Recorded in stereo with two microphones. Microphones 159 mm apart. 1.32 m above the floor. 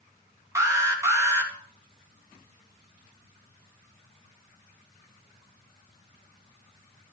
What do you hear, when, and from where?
0.6 s an alarm: 20° right (ahead or behind), 3.5 m